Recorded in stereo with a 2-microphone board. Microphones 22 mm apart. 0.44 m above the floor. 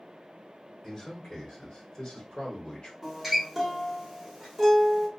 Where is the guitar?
10° right (ahead or behind), 1.2 m.